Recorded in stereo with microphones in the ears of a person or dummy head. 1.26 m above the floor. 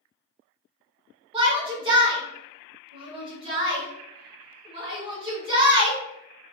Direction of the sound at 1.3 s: 35° right (ahead or behind).